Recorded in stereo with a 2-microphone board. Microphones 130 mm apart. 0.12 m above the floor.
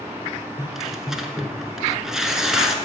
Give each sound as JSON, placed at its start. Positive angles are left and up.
{"t": 0.6, "sound": "tearing paper", "side_deg": -5, "distance_m": 1.2}